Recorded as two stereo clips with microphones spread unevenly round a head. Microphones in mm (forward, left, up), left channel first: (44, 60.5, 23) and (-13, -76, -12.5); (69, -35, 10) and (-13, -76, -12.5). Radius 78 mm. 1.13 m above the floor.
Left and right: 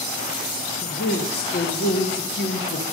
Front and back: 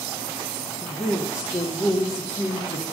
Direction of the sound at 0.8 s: 100° left.